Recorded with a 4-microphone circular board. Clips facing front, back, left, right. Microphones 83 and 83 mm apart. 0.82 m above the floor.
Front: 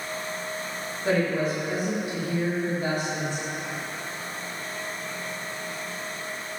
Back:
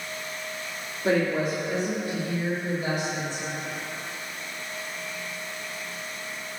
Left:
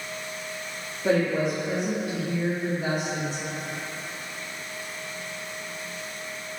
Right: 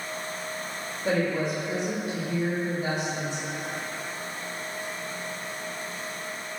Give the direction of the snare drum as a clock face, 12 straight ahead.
No snare drum in this recording.